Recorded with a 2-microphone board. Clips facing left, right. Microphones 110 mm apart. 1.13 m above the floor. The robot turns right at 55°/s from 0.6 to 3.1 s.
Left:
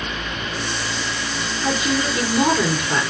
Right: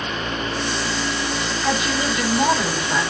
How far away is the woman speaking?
About 3.5 m.